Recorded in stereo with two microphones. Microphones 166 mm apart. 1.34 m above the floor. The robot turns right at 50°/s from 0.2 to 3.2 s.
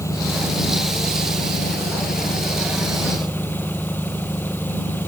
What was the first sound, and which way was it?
An engine running, 15° left.